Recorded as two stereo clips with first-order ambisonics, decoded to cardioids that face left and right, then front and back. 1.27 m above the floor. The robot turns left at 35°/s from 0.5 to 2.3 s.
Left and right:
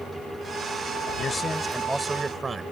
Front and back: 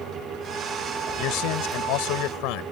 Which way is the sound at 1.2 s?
20° left.